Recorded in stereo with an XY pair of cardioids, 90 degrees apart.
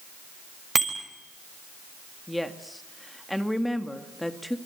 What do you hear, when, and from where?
0.8 s a bicycle bell: 25° right, 6 m
2.3 s a woman speaking: 5° left, 2 m